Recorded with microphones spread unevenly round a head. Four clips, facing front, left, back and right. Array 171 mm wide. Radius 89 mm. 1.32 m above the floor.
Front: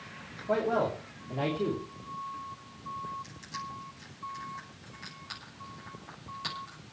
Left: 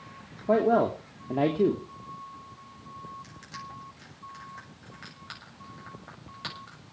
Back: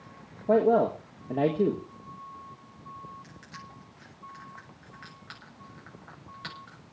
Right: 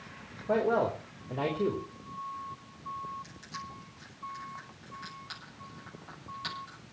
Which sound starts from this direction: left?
Crushing, at 3.2 s.